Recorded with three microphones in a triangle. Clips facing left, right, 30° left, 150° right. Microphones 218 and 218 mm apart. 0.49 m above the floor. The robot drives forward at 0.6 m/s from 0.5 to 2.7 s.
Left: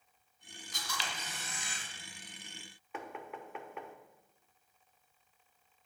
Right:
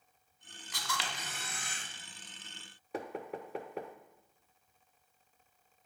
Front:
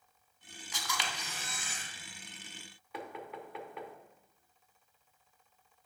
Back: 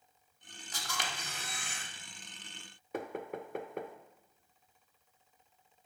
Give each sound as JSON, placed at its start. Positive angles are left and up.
{"t": 0.7, "sound": "a camera shutter", "azimuth_deg": -100, "distance_m": 1.3}
{"t": 2.9, "sound": "knocking", "azimuth_deg": -130, "distance_m": 0.6}